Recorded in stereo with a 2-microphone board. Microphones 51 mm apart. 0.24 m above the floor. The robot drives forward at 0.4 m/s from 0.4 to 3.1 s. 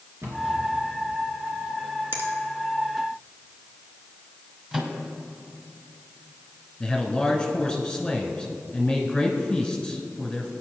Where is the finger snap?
50° right (ahead or behind), 2.5 m; by 2.3 s 45° right (ahead or behind), 2.5 m.